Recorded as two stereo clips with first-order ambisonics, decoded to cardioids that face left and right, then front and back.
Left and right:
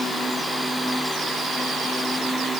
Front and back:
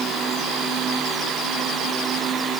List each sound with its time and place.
Only background noise.